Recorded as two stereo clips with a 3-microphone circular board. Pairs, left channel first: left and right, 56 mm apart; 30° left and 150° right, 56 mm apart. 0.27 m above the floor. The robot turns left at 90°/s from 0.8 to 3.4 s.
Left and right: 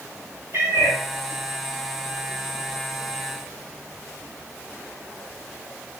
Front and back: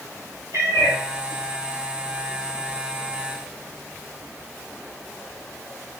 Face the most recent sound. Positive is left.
turn(degrees=0)